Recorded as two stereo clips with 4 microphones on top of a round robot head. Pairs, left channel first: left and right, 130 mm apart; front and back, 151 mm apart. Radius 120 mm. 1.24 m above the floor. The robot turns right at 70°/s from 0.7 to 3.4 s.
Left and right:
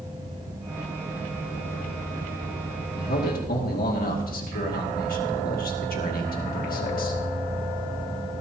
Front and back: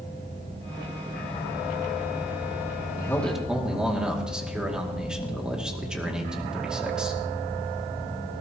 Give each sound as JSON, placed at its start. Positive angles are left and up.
{"t": 3.0, "sound": "a man speaking", "azimuth_deg": 65, "distance_m": 2.5}